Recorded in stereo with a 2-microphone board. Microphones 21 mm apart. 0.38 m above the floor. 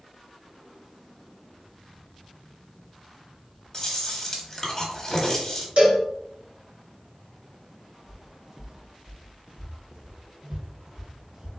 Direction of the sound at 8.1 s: 15° right (ahead or behind).